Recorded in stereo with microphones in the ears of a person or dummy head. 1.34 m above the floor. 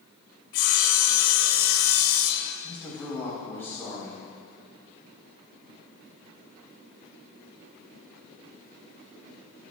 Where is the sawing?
80° left, 1.6 m.